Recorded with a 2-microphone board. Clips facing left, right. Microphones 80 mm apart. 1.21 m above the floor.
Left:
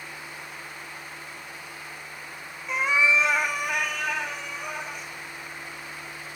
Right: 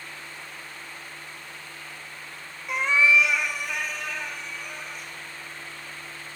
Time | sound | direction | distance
2.7 | a cat meowing | 5° right (ahead or behind) | 0.5 m